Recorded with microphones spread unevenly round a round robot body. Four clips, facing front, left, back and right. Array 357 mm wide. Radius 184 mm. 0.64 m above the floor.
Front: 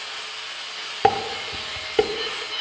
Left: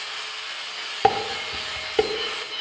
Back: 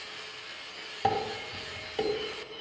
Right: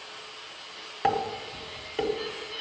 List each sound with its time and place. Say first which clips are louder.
1.0 s dishes clattering: left 5 dB, front 8 dB; 30° left, 0.9 m